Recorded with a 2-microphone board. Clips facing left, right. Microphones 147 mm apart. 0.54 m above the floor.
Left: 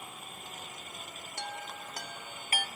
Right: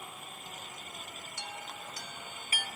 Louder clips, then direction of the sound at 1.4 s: Left 4 dB; 60° left (ahead or behind).